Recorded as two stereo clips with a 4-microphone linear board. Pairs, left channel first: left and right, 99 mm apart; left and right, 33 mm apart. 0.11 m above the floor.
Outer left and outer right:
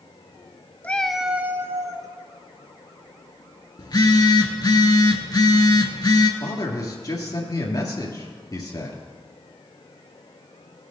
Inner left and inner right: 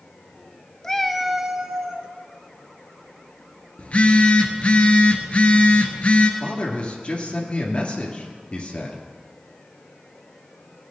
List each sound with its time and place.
0.8 s a cat meowing: 15° left (ahead or behind), 0.5 m; by 2.1 s 35° right (ahead or behind), 0.9 m
3.8 s a phone buzzing: 45° left (ahead or behind), 1.0 m
6.4 s a man speaking: 40° left (ahead or behind), 2 m